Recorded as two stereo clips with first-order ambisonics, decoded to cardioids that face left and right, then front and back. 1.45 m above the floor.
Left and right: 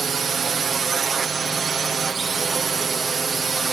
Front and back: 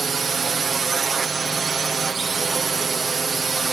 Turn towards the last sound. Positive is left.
turn(degrees=-130)